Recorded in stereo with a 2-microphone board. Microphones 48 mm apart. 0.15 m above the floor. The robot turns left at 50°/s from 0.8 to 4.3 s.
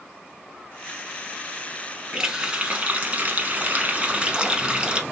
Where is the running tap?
25° right, 0.8 m; by 5.0 s 135° right, 0.8 m.